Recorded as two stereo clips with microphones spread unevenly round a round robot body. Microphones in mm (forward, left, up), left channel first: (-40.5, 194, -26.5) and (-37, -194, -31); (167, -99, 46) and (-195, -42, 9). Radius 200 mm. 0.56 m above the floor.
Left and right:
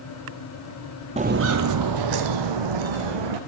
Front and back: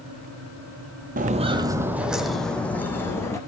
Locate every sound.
1.2 s footsteps: 145° right, 0.5 m; by 3.4 s 90° right, 1.6 m